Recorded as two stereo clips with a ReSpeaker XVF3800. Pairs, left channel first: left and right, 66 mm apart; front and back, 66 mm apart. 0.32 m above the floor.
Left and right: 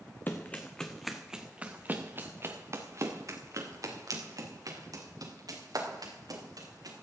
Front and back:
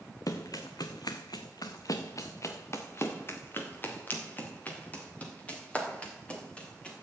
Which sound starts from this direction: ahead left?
Running footsteps, at 0.3 s.